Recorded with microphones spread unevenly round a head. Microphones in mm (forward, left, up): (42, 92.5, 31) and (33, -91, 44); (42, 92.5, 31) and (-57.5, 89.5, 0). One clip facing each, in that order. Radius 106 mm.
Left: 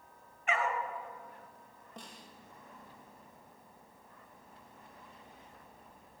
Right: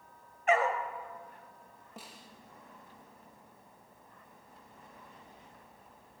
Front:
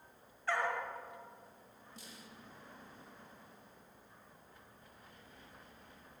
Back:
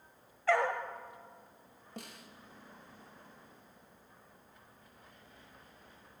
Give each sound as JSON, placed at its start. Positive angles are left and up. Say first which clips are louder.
{"t": 0.5, "sound": "a dog barking", "louder": "right 6 dB, back 6 dB", "azimuth_deg": -145, "distance_m": 1.5}
{"t": 2.0, "sound": "a snare drum", "louder": "even, back 7 dB", "azimuth_deg": 180, "distance_m": 2.0}